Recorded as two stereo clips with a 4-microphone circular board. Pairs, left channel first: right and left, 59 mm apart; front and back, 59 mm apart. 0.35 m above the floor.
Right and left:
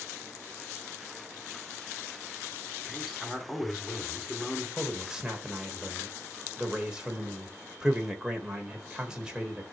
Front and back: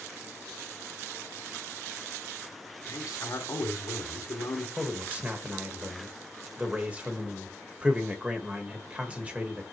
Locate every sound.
2.9 s a man speaking: 5° right, 2.5 m
4.8 s a man speaking: 150° left, 1.4 m